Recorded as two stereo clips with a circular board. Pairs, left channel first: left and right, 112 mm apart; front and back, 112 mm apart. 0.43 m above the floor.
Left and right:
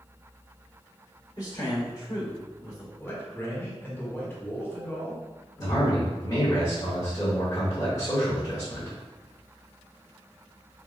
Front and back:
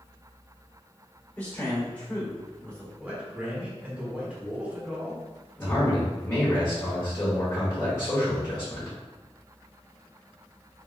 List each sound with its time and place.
1.4 s a man speaking: 65° left, 1.8 m
3.0 s a man speaking: 120° left, 1.1 m
5.6 s a man speaking: 50° left, 1.4 m